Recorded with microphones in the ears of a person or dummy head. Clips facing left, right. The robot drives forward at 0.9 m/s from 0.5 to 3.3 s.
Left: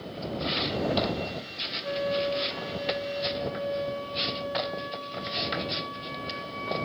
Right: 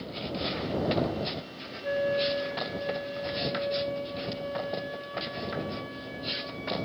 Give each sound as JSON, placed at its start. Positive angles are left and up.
{"t": 1.8, "sound": "a flute", "side_deg": -25, "distance_m": 0.7}